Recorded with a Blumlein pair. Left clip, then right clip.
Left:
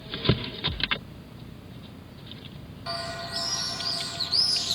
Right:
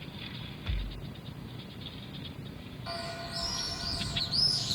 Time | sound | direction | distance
0.7 | a thud | 20° right | 2.5 m
2.9 | a bird | 20° left | 0.6 m